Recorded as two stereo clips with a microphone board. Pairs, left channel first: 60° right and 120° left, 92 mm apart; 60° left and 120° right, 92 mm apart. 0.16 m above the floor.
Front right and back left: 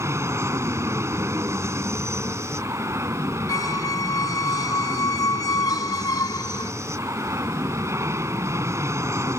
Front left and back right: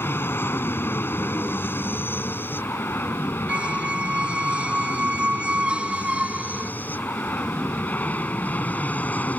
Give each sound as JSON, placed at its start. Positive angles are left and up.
{"t": 0.0, "sound": "an aircraft", "azimuth_deg": 100}
{"t": 3.5, "sound": "a squeak", "azimuth_deg": -50}